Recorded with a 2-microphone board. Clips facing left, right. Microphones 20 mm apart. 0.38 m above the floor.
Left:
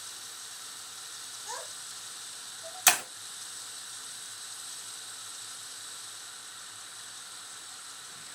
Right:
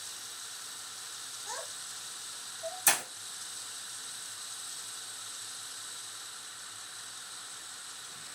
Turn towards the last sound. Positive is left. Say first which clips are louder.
# left 5 dB
turn(degrees=55)  # may be behind; listen again after turning